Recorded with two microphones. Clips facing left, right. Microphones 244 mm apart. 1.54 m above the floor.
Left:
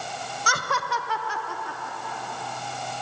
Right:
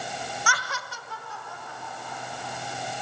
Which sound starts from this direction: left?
Laughter, at 0.5 s.